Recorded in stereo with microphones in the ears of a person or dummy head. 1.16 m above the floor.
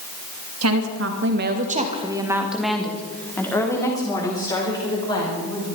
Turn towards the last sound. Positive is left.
turn(degrees=25)  # may be behind; listen again after turning